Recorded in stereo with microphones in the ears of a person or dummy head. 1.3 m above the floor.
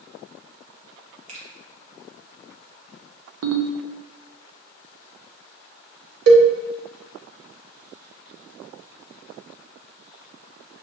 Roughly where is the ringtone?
Right.